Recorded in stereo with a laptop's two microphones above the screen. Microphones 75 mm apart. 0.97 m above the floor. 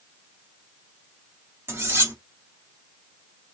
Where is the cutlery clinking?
35° right (ahead or behind), 1.2 m.